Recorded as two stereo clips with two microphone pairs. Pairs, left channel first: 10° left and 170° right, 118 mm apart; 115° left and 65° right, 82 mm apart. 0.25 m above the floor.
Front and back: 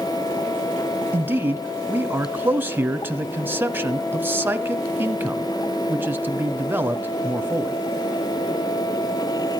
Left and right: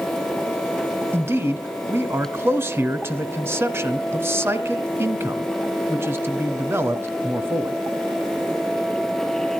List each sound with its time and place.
1.1 s a man speaking: 105° right, 1.2 m